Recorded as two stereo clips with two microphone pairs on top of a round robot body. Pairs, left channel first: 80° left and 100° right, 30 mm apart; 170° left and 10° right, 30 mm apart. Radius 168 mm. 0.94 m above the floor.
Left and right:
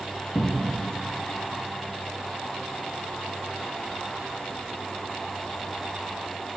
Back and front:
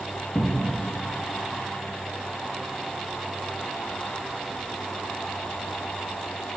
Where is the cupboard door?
125° left, 0.6 m.